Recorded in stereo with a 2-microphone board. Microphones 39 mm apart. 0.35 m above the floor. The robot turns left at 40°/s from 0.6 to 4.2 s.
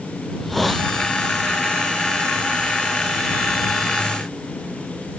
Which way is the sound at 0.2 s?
5° left (ahead or behind).